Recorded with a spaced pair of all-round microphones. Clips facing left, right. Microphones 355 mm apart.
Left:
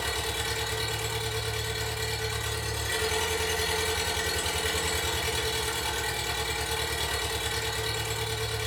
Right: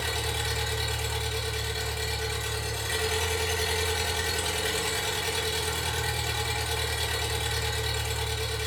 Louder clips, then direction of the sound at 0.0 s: Even; 50° right (ahead or behind).